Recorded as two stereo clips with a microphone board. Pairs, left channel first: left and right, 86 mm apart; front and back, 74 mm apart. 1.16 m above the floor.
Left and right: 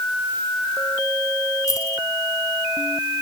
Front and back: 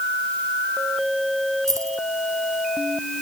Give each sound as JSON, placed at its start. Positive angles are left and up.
{"t": 1.7, "sound": "keys jangling", "azimuth_deg": 140}